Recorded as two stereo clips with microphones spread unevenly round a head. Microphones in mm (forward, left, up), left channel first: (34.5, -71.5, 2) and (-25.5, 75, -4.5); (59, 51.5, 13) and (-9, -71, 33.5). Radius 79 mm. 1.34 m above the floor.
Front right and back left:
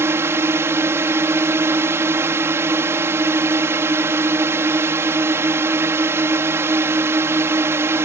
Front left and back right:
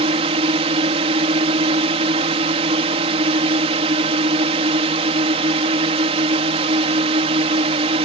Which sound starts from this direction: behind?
A drone, at 0.0 s.